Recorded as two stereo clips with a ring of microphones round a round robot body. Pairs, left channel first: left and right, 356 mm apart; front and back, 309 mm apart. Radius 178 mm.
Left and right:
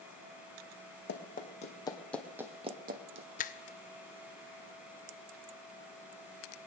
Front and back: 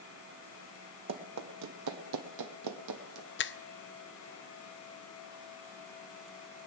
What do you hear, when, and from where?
1.1 s running footsteps: 150° left, 1.7 m; by 3.3 s 135° right, 1.3 m
3.4 s a finger snap: 30° left, 0.5 m